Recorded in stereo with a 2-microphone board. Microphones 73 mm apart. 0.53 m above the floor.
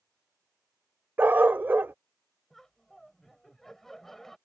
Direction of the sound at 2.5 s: 5° left (ahead or behind).